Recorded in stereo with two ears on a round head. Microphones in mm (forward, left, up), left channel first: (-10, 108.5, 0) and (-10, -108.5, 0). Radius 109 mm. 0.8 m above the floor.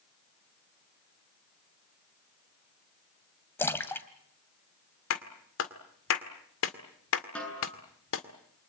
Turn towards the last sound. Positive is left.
turn(degrees=5)  # may be behind; listen again after turning